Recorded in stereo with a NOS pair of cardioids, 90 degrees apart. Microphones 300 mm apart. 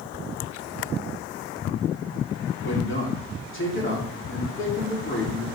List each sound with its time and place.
2.6 s a man speaking: 40° left, 4 m